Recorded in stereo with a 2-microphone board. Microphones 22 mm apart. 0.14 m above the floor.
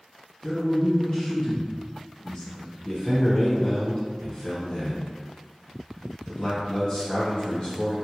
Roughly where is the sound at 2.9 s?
Left.